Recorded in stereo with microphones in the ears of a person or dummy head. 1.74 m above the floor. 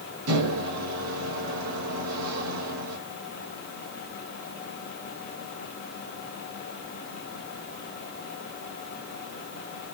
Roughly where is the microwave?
Right.